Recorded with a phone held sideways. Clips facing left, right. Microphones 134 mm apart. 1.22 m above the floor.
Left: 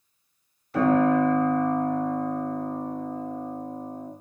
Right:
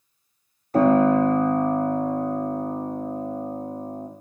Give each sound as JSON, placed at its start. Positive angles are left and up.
{"t": 0.7, "sound": "a piano", "side_deg": -40, "distance_m": 0.6}